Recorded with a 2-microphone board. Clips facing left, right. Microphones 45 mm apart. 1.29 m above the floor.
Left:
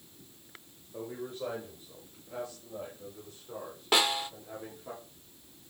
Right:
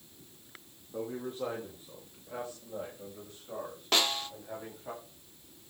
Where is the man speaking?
65° right (ahead or behind), 3.5 m; by 4.9 s 55° right (ahead or behind), 8.5 m.